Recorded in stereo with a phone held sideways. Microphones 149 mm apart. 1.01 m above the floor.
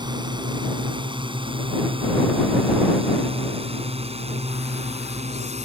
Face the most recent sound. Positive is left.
turn(degrees=-50)  # may be behind; listen again after turning